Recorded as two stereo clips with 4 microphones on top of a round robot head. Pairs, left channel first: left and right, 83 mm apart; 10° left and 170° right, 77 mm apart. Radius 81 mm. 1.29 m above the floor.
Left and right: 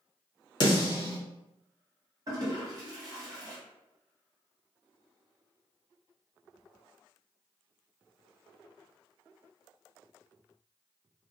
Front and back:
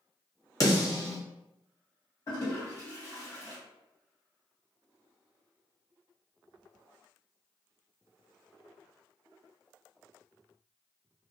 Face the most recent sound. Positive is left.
turn(degrees=-45)